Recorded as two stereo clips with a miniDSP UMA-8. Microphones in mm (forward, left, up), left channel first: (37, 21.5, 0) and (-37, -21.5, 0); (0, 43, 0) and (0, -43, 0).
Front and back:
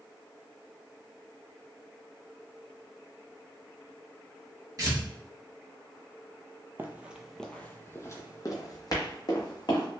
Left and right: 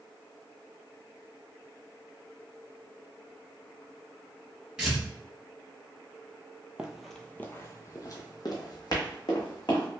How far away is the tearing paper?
About 1.8 m.